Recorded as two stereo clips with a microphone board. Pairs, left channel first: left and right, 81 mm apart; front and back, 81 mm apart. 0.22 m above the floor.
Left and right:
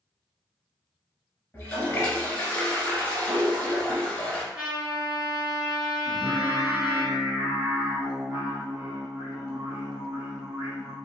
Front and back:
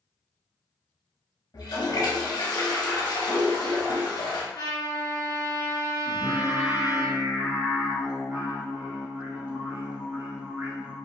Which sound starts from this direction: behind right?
Singing, at 6.0 s.